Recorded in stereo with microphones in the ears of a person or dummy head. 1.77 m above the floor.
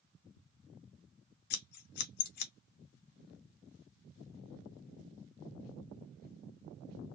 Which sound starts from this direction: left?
Scissors, at 1.5 s.